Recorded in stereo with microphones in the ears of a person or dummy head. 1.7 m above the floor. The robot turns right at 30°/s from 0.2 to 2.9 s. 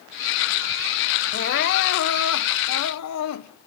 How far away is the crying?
About 1.3 m.